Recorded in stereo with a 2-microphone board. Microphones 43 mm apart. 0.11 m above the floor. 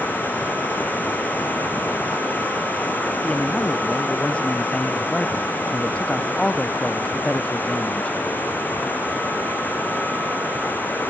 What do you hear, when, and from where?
0.0 s running water: 45° left (ahead or behind)
3.2 s a man speaking: 25° left (ahead or behind)